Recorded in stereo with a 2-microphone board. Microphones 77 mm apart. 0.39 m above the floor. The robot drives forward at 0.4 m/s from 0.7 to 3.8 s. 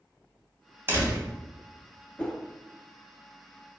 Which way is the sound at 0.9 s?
30° right (ahead or behind).